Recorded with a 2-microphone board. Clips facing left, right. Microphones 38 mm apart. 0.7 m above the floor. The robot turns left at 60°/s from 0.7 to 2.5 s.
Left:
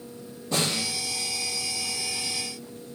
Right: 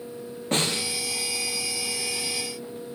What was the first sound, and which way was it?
A snare drum, 55° right (ahead or behind).